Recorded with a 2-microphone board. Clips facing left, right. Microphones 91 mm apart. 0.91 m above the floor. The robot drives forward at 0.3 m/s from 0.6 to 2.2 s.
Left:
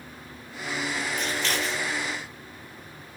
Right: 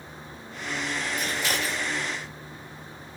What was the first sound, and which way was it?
Scissors, 10° right (ahead or behind).